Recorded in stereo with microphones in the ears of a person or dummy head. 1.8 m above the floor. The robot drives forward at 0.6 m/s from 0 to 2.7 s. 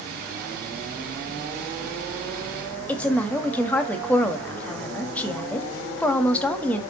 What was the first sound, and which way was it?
A woman speaking, 10° left (ahead or behind).